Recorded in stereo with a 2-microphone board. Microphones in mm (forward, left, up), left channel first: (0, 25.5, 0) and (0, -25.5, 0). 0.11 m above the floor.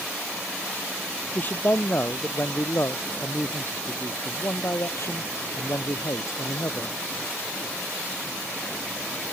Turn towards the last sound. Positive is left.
turn(degrees=70)  # may be behind; listen again after turning